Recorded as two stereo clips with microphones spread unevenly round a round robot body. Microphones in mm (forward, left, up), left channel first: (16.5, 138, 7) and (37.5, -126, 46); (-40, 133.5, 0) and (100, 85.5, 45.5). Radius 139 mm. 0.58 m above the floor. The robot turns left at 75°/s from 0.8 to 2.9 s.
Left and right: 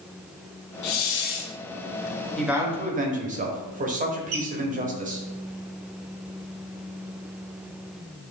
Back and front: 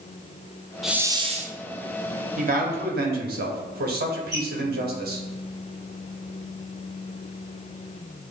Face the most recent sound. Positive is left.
turn(degrees=-130)